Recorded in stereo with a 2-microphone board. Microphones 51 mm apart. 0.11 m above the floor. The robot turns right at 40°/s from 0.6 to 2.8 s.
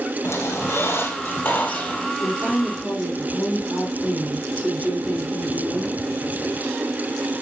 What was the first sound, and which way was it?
A squeak, 95° left.